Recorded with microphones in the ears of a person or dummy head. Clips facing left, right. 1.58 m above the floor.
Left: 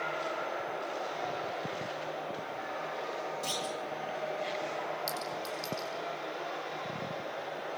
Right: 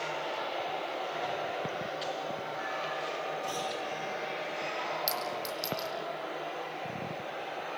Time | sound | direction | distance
3.4 | a clunk | 70° left (ahead or behind) | 10 m
5.1 | a clink | 15° right (ahead or behind) | 4.5 m